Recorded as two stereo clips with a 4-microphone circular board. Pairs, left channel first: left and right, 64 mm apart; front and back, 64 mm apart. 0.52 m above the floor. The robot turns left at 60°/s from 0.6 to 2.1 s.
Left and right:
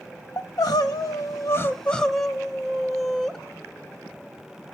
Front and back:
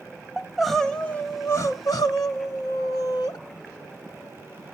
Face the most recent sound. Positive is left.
turn(degrees=5)